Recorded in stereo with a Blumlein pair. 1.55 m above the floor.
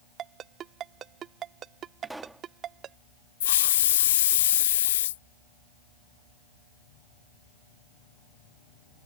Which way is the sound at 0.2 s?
25° right.